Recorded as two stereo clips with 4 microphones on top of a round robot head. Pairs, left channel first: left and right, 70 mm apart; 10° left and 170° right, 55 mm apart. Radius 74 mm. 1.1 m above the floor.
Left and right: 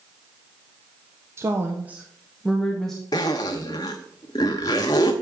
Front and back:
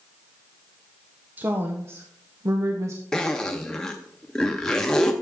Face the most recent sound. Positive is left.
turn(degrees=80)